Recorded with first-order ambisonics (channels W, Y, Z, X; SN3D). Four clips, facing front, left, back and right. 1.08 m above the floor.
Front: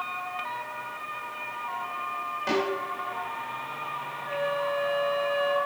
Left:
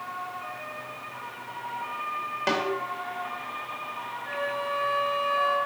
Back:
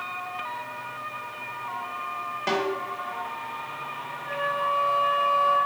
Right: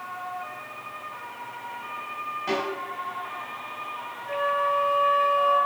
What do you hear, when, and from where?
2.5 s a snare drum: 105° left, 3 m
4.2 s a flute: 80° left, 2.5 m